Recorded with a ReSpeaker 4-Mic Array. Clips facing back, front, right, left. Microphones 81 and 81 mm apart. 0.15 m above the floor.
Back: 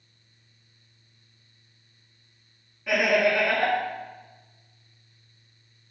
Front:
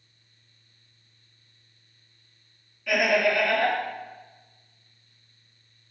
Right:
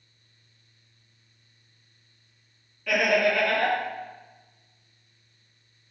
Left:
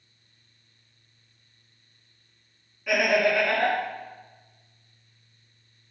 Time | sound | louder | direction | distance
2.9 | laughter | back 1 dB, even | 155° left | 1.1 m